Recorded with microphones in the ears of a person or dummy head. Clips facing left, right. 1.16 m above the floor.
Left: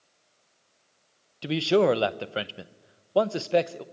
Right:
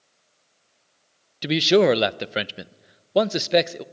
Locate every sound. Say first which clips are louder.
1.4 s a man speaking: right 4 dB; 20° right (ahead or behind), 0.6 m